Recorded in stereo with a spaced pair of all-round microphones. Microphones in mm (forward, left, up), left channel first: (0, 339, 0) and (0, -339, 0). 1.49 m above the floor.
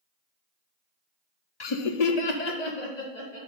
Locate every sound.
1.6 s laughter: 40° left (ahead or behind), 0.5 m; by 3.4 s 80° left, 1.7 m